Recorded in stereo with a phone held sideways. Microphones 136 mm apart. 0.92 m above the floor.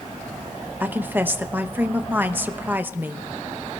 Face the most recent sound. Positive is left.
turn(degrees=-15)  # may be behind; listen again after turning